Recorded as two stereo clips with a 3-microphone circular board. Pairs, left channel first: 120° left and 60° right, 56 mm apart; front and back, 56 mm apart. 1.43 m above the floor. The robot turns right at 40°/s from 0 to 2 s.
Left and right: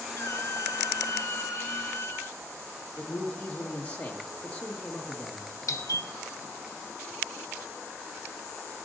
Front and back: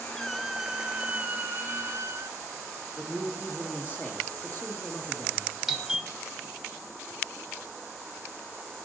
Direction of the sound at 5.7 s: 95° left.